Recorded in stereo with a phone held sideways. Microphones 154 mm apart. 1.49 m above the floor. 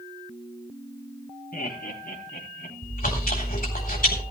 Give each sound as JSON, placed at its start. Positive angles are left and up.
{"t": 1.5, "sound": "laughter", "side_deg": 75, "distance_m": 3.5}
{"t": 2.8, "sound": "chewing", "side_deg": 65, "distance_m": 3.5}